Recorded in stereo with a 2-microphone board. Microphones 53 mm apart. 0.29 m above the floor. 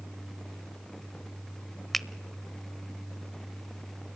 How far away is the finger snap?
About 0.7 m.